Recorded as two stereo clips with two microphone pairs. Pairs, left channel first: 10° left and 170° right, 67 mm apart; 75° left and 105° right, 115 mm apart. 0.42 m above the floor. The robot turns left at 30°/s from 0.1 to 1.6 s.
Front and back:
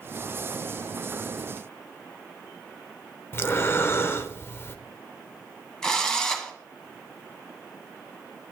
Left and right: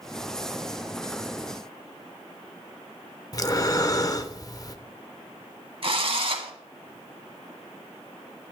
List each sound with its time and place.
3.3 s breathing: 35° left, 0.6 m
5.8 s a drill: 70° right, 1.1 m